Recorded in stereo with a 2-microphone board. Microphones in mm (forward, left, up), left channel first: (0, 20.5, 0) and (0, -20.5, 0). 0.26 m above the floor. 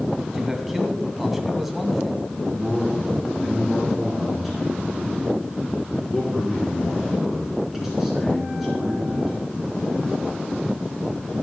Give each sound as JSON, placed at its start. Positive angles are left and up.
{"t": 0.3, "sound": "a man speaking", "side_deg": -5, "distance_m": 1.8}
{"t": 2.5, "sound": "a man speaking", "side_deg": -5, "distance_m": 3.5}